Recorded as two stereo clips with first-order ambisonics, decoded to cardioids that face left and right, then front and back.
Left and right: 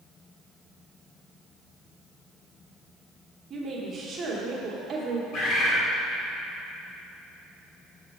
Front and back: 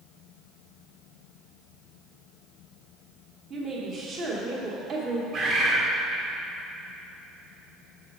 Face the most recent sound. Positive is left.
turn(degrees=125)